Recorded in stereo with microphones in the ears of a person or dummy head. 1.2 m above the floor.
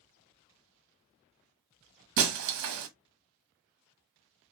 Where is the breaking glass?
70° right (ahead or behind), 1.0 m.